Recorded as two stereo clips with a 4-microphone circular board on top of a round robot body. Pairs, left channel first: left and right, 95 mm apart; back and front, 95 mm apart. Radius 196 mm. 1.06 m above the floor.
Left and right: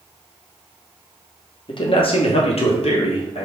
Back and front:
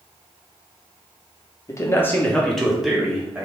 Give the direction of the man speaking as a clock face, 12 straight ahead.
8 o'clock.